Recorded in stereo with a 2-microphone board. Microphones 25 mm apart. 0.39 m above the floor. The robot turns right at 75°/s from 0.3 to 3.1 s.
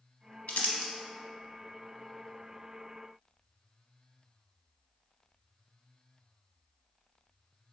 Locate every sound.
0.5 s crumpling: 85° left, 0.6 m; by 0.9 s 55° left (ahead or behind), 0.6 m